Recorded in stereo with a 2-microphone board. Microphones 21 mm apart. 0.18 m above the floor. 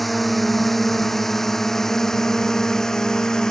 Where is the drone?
5° left (ahead or behind); by 3.5 s 30° left (ahead or behind).